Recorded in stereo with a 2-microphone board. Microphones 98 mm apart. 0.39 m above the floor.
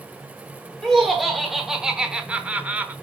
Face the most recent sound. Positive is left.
turn(degrees=-15)  # may be behind; listen again after turning